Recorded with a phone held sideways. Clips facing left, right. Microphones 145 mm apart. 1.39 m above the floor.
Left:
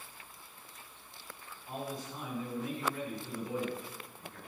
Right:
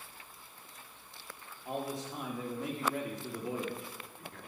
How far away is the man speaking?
About 2 m.